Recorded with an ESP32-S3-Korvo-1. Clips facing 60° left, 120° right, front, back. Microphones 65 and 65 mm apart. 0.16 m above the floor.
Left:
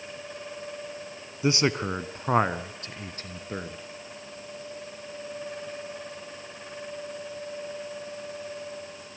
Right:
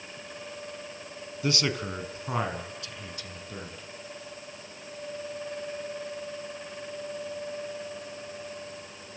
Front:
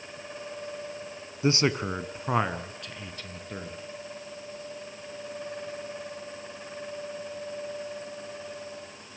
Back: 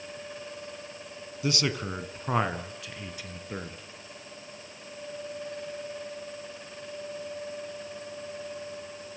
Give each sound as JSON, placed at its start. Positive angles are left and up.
{"t": 1.4, "sound": "a man speaking", "azimuth_deg": 10, "distance_m": 1.3}